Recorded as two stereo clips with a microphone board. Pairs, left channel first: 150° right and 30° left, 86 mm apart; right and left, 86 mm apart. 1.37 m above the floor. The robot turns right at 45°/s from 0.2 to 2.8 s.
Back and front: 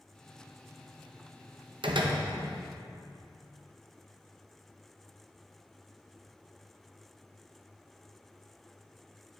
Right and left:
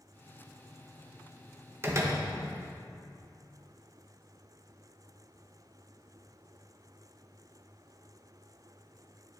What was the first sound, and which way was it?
A door slam, 30° left.